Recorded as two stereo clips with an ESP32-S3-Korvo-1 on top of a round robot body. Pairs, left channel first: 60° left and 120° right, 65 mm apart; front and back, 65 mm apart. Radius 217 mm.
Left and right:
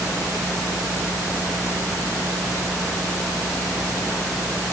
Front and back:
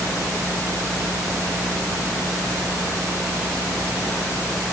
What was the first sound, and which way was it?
Only background noise.